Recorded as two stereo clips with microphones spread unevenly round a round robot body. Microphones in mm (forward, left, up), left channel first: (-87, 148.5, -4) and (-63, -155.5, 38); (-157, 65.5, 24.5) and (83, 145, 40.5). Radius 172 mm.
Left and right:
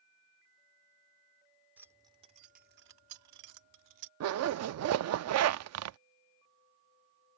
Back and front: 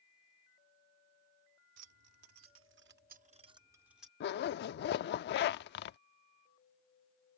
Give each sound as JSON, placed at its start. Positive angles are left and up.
{"t": 1.8, "sound": "keys jangling", "azimuth_deg": 5}
{"t": 4.2, "sound": "a zipper", "azimuth_deg": -125}